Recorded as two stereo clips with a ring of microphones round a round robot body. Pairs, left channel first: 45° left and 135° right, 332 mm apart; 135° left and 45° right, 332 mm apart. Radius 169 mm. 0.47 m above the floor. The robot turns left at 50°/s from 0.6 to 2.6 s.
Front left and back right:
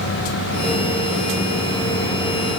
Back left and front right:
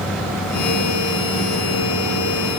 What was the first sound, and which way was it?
Only background noise.